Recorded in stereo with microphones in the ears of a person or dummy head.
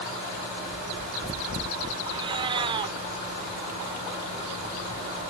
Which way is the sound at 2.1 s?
35° right (ahead or behind).